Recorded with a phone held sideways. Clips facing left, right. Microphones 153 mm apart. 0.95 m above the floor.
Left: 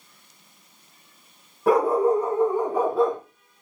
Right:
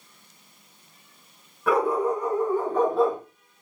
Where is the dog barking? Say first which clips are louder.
Left 4 dB; 35° left (ahead or behind), 2.5 m; by 3.2 s 15° right (ahead or behind), 1.0 m.